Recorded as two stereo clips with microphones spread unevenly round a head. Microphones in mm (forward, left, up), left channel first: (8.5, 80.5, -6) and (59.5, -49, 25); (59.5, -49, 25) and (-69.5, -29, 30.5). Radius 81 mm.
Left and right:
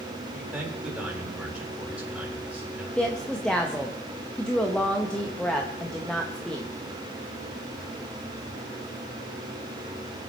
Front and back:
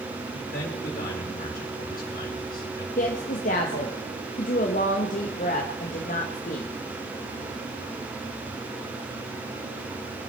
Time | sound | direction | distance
0.3 | a man speaking | 15° left | 4.5 m
3.0 | a woman speaking | 30° left | 1.1 m